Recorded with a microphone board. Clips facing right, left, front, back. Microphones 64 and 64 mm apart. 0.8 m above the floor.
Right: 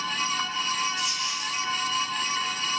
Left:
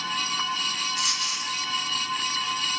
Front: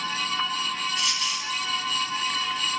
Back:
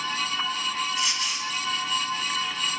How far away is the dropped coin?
About 3 m.